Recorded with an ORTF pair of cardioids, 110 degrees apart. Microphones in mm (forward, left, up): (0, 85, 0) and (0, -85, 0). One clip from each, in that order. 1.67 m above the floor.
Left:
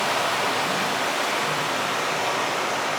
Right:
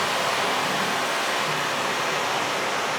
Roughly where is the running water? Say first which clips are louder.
Left 1 dB; ahead.